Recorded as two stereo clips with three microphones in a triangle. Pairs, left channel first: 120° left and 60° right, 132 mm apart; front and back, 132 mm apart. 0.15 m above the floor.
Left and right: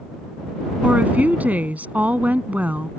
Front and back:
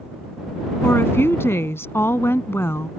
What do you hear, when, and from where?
0.8 s a woman speaking: 10° right